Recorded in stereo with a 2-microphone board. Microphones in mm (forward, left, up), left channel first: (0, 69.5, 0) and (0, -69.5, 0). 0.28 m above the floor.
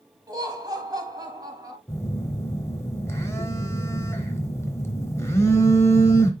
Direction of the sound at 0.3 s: 30° right (ahead or behind).